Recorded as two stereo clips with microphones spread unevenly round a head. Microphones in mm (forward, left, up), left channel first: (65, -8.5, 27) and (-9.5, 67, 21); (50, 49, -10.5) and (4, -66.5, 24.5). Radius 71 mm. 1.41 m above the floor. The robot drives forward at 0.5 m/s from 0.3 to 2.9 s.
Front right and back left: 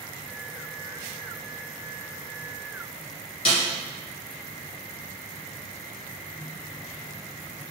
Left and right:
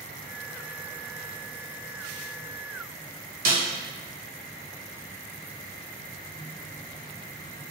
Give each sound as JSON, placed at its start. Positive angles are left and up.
{"t": 3.5, "sound": "a snare drum", "azimuth_deg": -95, "distance_m": 1.5}